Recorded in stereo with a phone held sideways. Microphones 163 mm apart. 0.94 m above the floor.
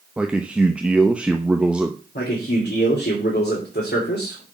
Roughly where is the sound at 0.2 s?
Centre.